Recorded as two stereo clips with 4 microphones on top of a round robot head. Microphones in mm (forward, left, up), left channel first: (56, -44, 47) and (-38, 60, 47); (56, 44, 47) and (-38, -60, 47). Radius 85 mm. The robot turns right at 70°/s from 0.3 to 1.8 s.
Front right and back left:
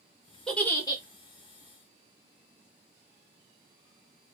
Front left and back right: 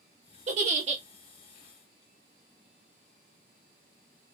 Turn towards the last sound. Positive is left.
turn(degrees=-45)